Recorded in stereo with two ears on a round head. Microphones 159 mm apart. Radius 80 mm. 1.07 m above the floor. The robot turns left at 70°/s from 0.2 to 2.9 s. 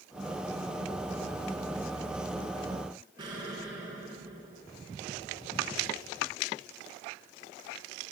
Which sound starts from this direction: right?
An explosion, at 3.2 s.